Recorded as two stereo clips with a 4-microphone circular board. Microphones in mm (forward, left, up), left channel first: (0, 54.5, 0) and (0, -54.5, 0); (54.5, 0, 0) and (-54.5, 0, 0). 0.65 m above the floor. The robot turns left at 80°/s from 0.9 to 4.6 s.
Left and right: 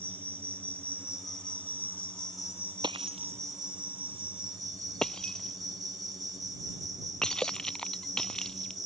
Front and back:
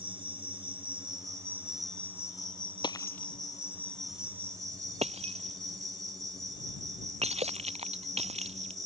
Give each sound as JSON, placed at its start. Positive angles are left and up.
{"t": 0.0, "sound": "an insect", "azimuth_deg": 165}
{"t": 2.8, "sound": "breaking glass", "azimuth_deg": -45}